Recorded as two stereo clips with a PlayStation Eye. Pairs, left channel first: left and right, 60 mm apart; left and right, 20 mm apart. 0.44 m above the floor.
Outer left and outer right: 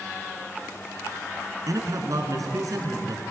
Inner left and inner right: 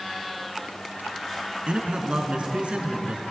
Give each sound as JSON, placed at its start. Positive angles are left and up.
{"t": 1.7, "sound": "a man speaking", "side_deg": -70, "distance_m": 4.5}